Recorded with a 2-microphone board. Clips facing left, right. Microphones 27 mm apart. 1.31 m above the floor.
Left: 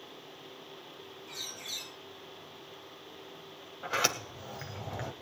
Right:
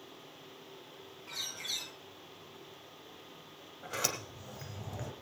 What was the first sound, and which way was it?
A bird, 45° right (ahead or behind).